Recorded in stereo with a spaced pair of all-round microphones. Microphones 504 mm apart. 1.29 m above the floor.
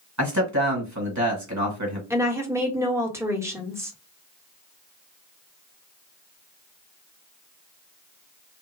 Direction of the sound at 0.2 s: 35° right (ahead or behind).